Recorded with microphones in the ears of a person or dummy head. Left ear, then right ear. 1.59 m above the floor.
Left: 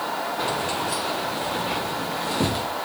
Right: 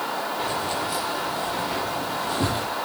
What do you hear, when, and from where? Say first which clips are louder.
0.4 s keys jangling: left 2 dB; 40° left (ahead or behind), 3 m; by 2.7 s 15° left (ahead or behind), 1.5 m